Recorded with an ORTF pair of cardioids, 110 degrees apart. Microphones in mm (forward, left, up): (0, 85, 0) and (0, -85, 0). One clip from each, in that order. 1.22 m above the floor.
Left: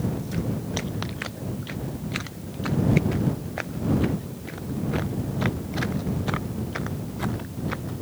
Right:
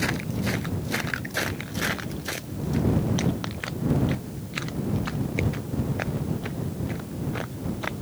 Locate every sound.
Only background noise.